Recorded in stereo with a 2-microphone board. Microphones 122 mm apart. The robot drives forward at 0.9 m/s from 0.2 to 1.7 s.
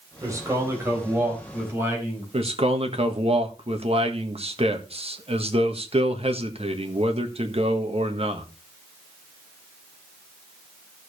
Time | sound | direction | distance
0.2 | a man speaking | 25° right (ahead or behind) | 4 m
2.3 | a man speaking | 55° right (ahead or behind) | 1.6 m